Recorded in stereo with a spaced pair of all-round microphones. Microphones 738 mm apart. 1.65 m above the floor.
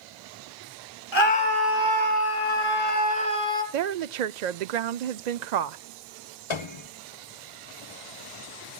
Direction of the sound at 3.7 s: 70° right (ahead or behind).